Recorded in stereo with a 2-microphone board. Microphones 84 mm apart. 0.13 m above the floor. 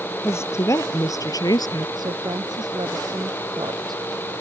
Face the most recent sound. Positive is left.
turn(degrees=-55)  # may be behind; listen again after turning